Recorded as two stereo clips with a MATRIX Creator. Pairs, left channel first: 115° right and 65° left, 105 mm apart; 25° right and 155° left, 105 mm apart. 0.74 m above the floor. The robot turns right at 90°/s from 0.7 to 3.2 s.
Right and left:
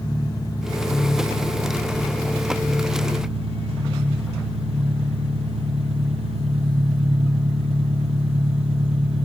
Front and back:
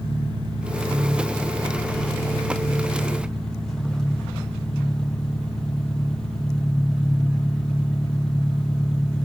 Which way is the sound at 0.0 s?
165° right.